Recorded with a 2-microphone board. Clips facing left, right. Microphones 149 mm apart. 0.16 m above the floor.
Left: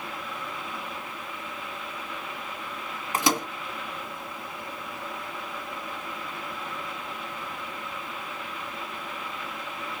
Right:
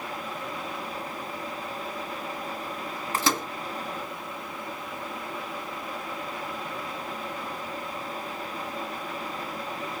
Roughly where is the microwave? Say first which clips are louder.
Left 2 dB; centre.